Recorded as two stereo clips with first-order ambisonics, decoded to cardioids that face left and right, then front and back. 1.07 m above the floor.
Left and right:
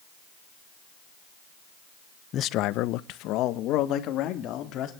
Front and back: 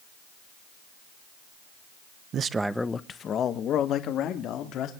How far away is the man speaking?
About 0.7 m.